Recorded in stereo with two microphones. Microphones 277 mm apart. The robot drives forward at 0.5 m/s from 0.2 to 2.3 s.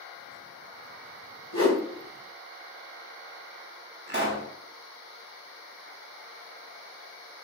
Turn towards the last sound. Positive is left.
turn(degrees=-40)  # may be behind; listen again after turning